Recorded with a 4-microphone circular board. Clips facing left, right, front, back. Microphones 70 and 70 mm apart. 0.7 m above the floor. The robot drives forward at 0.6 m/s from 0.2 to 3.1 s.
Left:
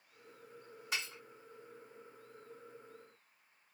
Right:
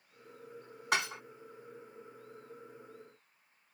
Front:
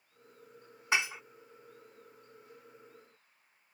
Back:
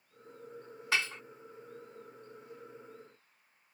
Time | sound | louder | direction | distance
0.9 | dishes clattering | right 9 dB, front 2 dB | 70° right | ?